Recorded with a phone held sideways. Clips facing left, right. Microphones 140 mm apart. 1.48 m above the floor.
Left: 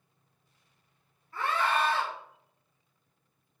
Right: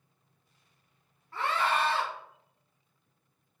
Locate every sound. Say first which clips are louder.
1.3 s a scream: even; 90° right, 1.6 m